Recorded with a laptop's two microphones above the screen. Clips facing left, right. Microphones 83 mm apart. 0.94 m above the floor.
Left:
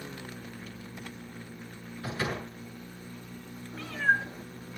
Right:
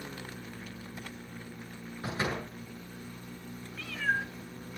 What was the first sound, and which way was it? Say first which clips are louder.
A door slam: even; 25° right (ahead or behind).